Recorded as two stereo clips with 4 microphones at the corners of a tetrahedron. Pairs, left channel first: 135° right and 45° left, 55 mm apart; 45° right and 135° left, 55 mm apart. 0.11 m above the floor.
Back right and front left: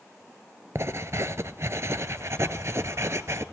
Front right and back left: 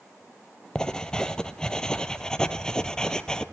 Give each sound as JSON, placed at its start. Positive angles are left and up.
{"t": 0.8, "sound": "writing", "azimuth_deg": 30, "distance_m": 0.5}